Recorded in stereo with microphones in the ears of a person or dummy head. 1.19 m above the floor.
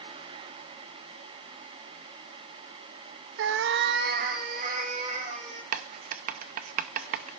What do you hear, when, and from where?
3.4 s a cat meowing: 55° right (ahead or behind), 0.7 m; by 5.6 s 40° right (ahead or behind), 3.5 m
5.7 s writing: 45° right (ahead or behind), 0.7 m